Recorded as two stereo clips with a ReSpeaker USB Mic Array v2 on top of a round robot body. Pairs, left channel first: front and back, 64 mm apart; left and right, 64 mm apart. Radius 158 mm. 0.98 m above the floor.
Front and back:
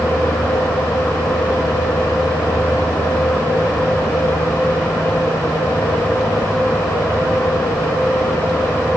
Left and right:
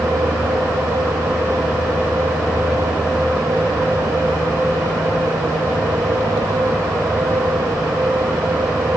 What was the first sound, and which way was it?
Only background noise.